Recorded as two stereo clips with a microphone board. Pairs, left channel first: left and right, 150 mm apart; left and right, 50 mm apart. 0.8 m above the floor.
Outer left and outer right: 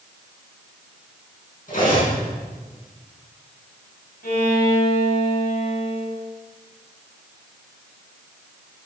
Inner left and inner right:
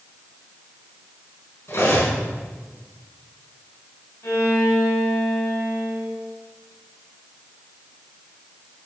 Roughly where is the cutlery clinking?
Left.